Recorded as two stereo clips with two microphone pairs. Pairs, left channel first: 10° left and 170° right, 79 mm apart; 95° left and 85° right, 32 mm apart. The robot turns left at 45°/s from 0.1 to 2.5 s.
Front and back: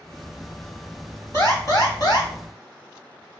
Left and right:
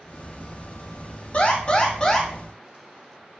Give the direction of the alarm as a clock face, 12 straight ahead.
10 o'clock.